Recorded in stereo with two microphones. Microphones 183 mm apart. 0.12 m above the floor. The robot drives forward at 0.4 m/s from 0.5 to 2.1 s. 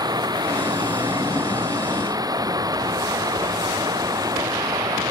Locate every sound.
0.0 s running water: 20° right (ahead or behind)